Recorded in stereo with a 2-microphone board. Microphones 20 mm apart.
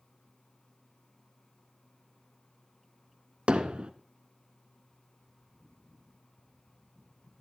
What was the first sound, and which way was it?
Hammering, 85° right.